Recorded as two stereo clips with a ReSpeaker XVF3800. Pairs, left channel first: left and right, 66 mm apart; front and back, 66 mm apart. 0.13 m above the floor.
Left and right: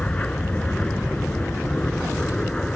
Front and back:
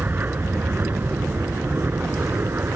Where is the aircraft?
150° left; by 2.8 s 160° left.